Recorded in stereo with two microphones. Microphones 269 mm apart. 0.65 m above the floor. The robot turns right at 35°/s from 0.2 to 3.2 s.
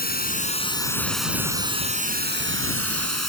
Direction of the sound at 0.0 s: 145° left.